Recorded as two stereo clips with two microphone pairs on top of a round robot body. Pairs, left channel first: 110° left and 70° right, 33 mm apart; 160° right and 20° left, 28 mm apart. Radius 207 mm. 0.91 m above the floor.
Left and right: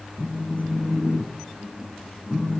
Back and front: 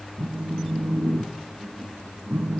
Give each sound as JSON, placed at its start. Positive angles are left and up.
{"t": 0.2, "sound": "a phone buzzing", "azimuth_deg": 20, "distance_m": 1.7}